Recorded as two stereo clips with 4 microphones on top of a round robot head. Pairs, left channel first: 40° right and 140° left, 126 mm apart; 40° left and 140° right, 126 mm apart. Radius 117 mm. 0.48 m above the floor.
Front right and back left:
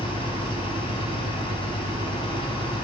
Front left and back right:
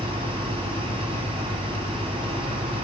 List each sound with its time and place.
0.0 s an engine running: 90° right, 4 m